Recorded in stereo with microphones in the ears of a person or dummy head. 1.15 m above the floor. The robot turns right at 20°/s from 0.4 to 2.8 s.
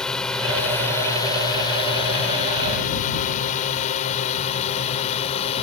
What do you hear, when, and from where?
0.0 s a drone: 10° left (ahead or behind); by 5.6 s 35° left (ahead or behind)